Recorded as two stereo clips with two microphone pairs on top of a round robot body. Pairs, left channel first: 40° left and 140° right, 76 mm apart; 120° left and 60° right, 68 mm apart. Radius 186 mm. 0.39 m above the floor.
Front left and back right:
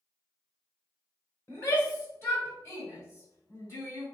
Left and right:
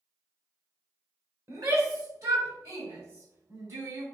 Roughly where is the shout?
Ahead.